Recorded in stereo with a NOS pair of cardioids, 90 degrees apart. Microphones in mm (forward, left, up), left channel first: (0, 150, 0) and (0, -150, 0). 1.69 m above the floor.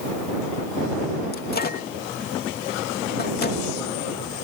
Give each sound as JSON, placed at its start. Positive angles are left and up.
{"t": 1.3, "sound": "a microwave", "azimuth_deg": 30}